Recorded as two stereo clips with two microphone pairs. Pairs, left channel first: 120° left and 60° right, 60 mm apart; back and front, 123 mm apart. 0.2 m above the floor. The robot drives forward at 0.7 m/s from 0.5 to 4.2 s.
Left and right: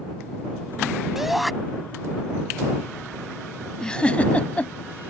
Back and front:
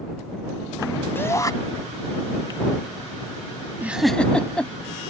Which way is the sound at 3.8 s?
50° left.